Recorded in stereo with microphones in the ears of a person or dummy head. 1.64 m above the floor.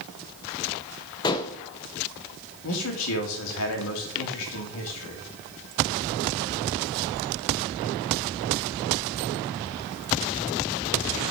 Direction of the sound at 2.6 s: 75° left (ahead or behind).